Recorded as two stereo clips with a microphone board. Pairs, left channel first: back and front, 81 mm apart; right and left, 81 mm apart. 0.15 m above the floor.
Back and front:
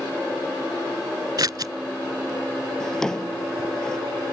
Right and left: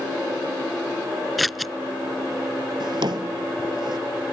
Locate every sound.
1.4 s scissors: straight ahead
2.8 s a drawer: 95° left